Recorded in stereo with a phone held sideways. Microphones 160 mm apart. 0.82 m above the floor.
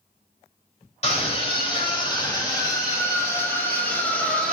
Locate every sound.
1.0 s a scream: 40° left (ahead or behind), 3 m; by 4.5 s 5° left (ahead or behind), 3.5 m